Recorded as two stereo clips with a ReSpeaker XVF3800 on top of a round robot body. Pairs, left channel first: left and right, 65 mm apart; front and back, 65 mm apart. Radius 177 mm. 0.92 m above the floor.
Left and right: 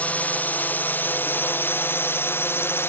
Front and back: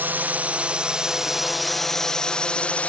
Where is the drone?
140° left; by 2.9 s 60° left.